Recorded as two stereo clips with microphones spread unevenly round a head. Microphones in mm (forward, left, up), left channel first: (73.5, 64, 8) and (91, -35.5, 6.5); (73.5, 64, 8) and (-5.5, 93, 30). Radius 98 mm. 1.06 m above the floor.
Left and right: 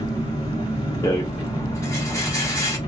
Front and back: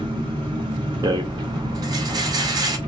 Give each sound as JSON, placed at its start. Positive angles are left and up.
{"t": 0.0, "sound": "an engine running", "azimuth_deg": 150, "distance_m": 1.6}
{"t": 1.0, "sound": "a rattle", "azimuth_deg": 165, "distance_m": 0.6}